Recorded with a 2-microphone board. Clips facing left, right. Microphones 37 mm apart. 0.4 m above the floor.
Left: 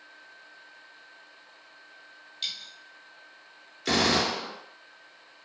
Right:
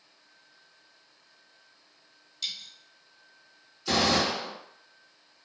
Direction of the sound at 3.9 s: 80° left.